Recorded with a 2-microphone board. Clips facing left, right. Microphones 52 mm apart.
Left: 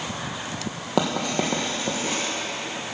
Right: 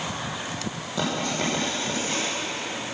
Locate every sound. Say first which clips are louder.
1.0 s writing: left 4 dB; 75° left (ahead or behind), 2.5 m